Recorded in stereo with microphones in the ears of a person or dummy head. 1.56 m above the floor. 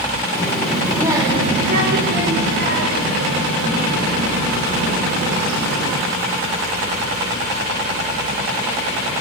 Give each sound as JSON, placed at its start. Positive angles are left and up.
{"t": 0.3, "sound": "a child speaking", "side_deg": 10, "distance_m": 2.5}